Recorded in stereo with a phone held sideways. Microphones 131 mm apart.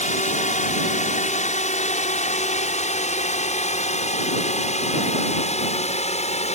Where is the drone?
70° left (ahead or behind); by 6.5 s 60° left (ahead or behind).